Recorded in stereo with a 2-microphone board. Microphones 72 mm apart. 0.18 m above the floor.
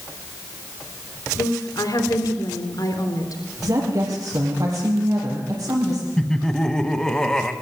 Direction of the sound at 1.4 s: 60° left (ahead or behind).